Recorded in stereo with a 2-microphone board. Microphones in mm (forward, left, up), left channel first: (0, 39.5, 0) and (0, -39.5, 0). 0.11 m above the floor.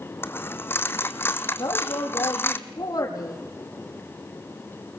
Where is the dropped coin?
30° left (ahead or behind), 1.0 m.